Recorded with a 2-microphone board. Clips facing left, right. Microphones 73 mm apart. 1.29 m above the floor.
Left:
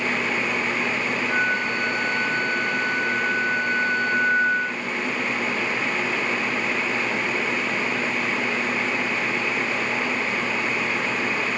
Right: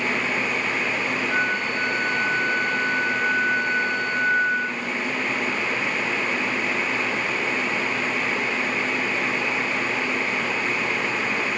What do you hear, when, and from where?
1.3 s a flute: 10° left (ahead or behind), 4 m